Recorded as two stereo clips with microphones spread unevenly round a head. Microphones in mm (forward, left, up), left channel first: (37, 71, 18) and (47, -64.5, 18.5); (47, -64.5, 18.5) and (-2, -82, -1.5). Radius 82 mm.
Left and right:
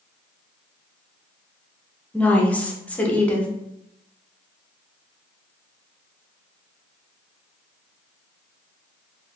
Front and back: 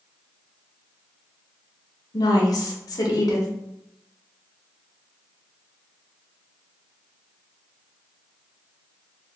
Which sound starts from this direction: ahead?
A woman speaking, at 2.1 s.